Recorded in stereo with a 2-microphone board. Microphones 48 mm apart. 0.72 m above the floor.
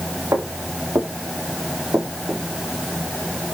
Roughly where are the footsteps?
Right.